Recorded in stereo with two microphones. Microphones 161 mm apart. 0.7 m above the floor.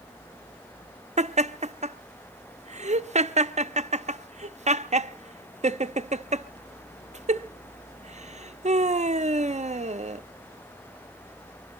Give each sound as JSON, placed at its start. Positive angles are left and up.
{"t": 1.2, "sound": "laughter", "side_deg": -45, "distance_m": 0.8}